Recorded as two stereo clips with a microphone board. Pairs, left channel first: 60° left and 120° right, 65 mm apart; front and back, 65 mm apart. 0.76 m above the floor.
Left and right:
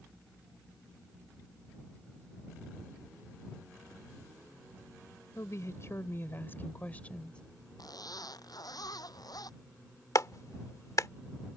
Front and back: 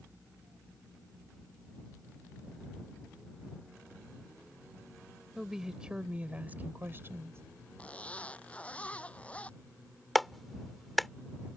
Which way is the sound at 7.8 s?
70° left.